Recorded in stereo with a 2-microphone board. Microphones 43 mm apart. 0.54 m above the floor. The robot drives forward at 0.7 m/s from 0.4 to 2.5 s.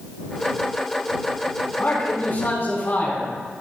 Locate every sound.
1.8 s a man speaking: 45° left (ahead or behind), 4.5 m; by 3.3 s 50° left (ahead or behind), 4 m